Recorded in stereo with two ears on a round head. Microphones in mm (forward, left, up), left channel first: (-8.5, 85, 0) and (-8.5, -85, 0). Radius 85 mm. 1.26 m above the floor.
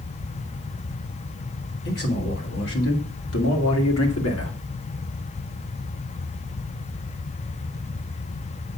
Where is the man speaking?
55° left (ahead or behind), 3.5 m; by 4.5 s 80° left, 2.5 m.